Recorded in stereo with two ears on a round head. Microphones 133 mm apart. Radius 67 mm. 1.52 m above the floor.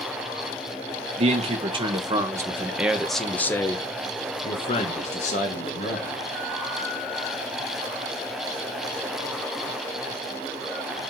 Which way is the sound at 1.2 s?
45° right (ahead or behind).